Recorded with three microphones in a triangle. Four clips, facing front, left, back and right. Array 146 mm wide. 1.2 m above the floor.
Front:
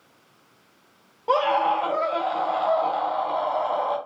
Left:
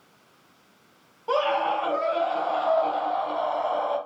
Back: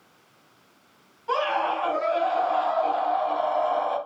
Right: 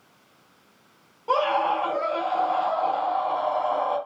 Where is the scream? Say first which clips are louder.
Right 1 dB, front 4 dB; 5° left, 3 m.